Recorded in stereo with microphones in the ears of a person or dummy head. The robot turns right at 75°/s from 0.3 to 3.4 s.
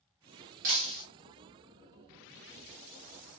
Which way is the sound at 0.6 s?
40° right (ahead or behind).